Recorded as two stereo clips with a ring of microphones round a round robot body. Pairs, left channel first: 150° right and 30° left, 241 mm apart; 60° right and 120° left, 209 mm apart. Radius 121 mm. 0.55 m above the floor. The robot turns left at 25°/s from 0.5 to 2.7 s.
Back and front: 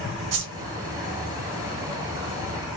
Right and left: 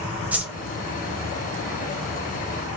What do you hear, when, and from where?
0.3 s a whoosh: 35° left, 1.4 m